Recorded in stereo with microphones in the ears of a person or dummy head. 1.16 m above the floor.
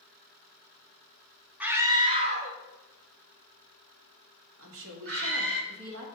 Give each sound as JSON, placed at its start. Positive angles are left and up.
{"t": 1.6, "sound": "a scream", "side_deg": -10, "distance_m": 0.7}
{"t": 4.6, "sound": "a woman speaking", "side_deg": -70, "distance_m": 2.0}